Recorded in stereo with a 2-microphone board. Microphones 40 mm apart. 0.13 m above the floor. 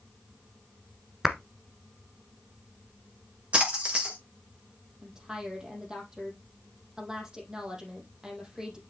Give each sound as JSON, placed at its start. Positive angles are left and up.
{"t": 1.2, "sound": "a clap", "side_deg": -10, "distance_m": 1.3}
{"t": 3.5, "sound": "a splash", "side_deg": -30, "distance_m": 4.5}
{"t": 5.0, "sound": "a woman speaking", "side_deg": -20, "distance_m": 4.5}